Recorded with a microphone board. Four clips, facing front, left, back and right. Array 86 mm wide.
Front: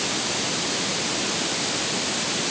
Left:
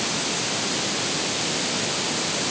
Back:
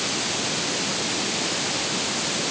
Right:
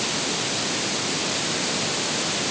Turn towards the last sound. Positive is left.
No sound to turn to.